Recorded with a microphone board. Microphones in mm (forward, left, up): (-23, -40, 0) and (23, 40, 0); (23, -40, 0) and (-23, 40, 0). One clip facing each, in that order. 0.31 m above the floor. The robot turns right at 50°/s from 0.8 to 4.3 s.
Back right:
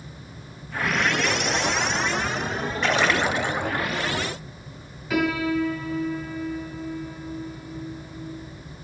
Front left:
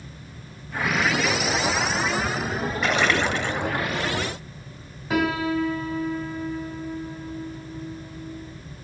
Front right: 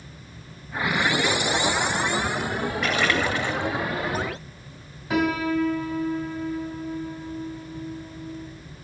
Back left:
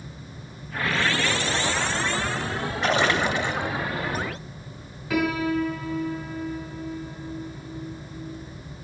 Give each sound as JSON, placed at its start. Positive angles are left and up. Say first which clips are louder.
{"t": 2.8, "sound": "a splash", "louder": "back right 1 dB, back left 3 dB", "azimuth_deg": 145, "distance_m": 1.1}
{"t": 5.1, "sound": "a piano", "louder": "even, front right 1 dB", "azimuth_deg": 10, "distance_m": 3.0}